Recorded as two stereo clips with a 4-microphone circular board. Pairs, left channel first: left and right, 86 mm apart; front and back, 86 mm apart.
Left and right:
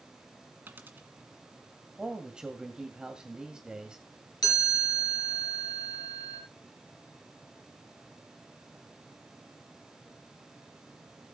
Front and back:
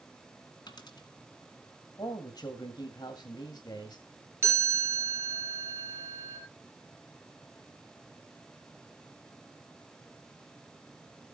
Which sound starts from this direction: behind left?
A chime, at 4.4 s.